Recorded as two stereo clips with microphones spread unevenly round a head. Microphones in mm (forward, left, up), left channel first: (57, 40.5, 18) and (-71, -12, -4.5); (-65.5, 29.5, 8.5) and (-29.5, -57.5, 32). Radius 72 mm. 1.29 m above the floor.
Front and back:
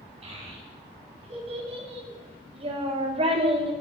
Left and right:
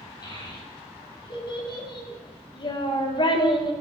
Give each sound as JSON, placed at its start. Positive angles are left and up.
{"t": 0.2, "sound": "a child speaking", "azimuth_deg": 155, "distance_m": 7.0}